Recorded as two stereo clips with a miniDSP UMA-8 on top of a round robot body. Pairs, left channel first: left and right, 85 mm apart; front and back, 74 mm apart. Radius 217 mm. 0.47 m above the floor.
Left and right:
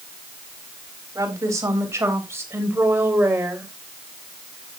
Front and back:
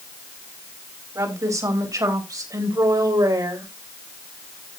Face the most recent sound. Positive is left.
turn(degrees=-160)